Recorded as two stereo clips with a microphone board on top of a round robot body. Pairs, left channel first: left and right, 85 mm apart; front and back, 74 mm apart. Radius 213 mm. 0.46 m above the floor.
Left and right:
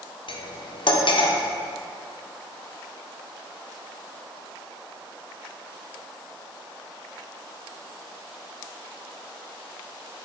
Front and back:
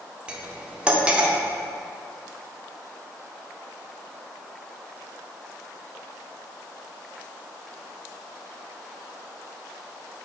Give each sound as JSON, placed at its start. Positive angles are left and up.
{"t": 0.3, "sound": "cutlery clinking", "azimuth_deg": 105, "distance_m": 1.0}